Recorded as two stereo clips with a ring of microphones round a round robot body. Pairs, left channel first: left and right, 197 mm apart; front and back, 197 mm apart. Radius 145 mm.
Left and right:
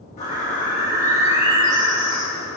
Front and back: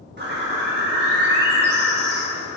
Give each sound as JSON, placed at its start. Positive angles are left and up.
{"t": 0.2, "sound": "a bird", "azimuth_deg": 150, "distance_m": 1.7}